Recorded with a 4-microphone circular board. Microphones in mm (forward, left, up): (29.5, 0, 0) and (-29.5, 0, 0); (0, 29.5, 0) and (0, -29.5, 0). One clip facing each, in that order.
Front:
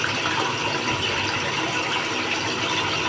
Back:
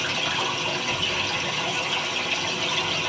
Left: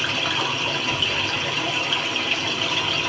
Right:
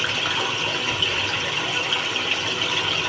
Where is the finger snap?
I don't hear a finger snap.